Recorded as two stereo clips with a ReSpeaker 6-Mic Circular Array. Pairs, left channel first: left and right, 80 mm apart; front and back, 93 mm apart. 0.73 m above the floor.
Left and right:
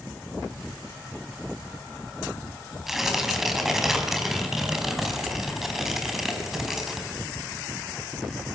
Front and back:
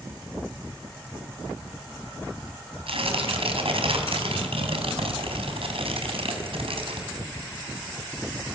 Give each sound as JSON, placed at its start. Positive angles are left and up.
{"t": 2.9, "sound": "tearing paper", "azimuth_deg": -175, "distance_m": 3.5}